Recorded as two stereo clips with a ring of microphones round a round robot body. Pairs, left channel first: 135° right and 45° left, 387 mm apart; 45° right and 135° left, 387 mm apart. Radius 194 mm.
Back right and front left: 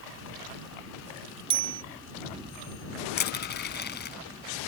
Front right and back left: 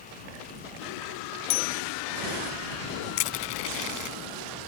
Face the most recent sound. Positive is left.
turn(degrees=-70)